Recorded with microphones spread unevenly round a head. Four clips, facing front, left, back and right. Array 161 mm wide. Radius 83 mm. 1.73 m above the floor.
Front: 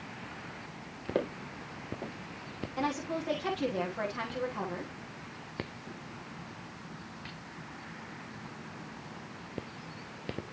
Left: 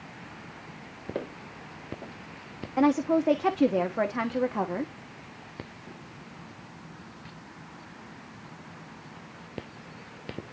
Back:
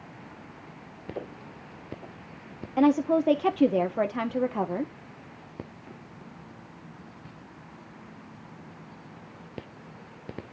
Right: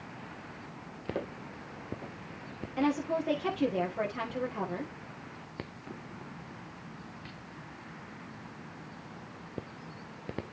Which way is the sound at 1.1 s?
15° left.